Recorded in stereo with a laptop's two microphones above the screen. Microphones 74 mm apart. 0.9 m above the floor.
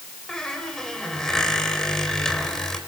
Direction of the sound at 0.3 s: 10° left (ahead or behind).